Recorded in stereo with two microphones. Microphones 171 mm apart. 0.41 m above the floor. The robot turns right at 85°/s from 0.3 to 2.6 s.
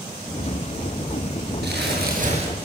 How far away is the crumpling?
About 8 m.